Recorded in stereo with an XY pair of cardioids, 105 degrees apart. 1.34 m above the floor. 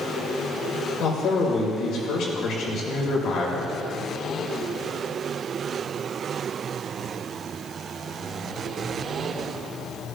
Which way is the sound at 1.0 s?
70° left.